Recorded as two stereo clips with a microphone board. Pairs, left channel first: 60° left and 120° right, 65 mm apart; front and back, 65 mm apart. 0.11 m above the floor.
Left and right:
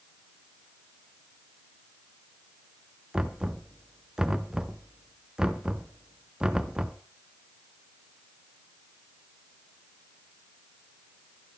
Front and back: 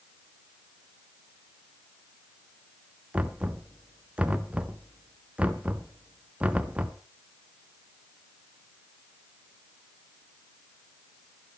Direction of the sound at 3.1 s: 175° right.